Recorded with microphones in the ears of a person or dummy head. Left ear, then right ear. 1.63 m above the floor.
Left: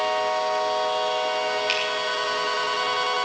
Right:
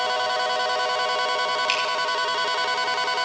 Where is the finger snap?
5° right (ahead or behind), 4.5 m.